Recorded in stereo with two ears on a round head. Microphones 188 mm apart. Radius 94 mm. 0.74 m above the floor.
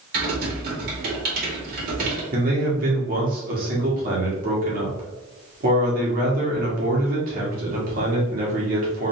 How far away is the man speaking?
About 1.6 m.